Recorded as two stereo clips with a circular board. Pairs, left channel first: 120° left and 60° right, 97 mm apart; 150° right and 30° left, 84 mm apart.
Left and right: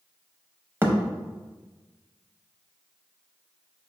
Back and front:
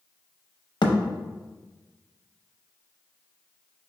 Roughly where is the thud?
Behind right.